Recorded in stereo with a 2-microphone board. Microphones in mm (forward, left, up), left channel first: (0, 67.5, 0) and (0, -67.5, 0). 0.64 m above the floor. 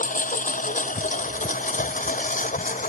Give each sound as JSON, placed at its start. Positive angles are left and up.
{"t": 0.0, "sound": "a lawn mower", "side_deg": 80}